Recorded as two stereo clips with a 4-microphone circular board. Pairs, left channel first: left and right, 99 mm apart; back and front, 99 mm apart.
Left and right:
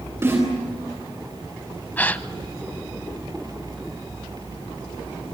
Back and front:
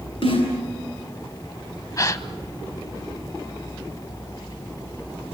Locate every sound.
0.2 s a snare drum: 155° right, 10 m
2.0 s a gasp: 150° left, 0.8 m